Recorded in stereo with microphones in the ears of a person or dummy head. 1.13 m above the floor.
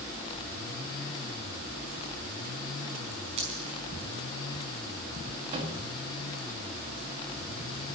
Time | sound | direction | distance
3.4 | a dropped coin | 30° right (ahead or behind) | 5 m
5.5 | a microwave | 35° right (ahead or behind) | 1.8 m